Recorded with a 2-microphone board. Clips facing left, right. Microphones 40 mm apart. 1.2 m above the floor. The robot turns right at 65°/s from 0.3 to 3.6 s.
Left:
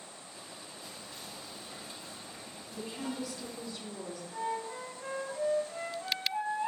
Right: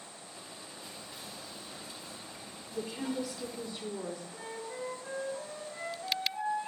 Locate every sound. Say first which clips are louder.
0.8 s whispering: even; 30° right, 3 m; by 3.7 s 150° left, 3 m
2.7 s a woman speaking: right 3 dB; 140° left, 3 m; by 4.2 s 160° right, 3 m
4.3 s a flute: left 6 dB; 80° left, 4 m